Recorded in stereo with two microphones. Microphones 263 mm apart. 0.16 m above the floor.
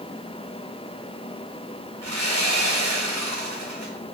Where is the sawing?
70° right (ahead or behind), 2.5 m.